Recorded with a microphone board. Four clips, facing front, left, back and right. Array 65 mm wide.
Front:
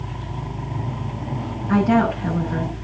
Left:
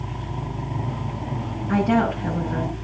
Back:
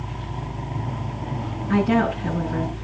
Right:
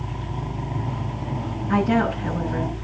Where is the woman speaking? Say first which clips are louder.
Even, front 2 dB; 35° left, 8 m.